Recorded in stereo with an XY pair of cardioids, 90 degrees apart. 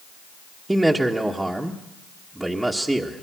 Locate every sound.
0.7 s a man speaking: 15° right, 1.6 m